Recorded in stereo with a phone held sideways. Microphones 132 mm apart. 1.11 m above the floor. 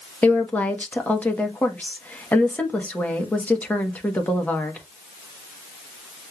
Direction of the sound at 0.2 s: 10° left (ahead or behind).